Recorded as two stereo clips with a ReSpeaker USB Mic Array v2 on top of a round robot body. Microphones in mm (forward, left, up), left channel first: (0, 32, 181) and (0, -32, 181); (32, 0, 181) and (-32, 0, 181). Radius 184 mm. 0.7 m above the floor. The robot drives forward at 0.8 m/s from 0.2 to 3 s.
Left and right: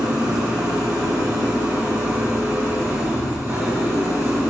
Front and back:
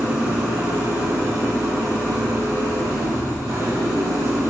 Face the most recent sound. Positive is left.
turn(degrees=-145)